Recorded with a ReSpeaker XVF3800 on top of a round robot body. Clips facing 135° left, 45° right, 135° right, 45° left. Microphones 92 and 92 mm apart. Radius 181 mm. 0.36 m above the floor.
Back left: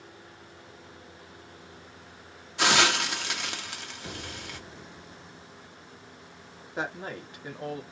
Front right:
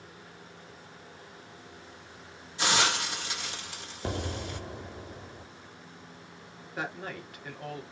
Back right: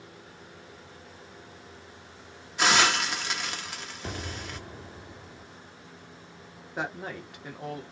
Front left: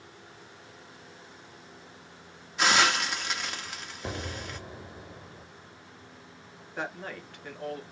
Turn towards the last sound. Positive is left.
turn(degrees=170)